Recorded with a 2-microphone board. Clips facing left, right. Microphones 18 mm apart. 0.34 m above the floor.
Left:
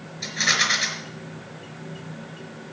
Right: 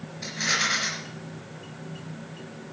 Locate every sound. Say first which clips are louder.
0.2 s a rattle: left 4 dB; 60° left (ahead or behind), 4.5 m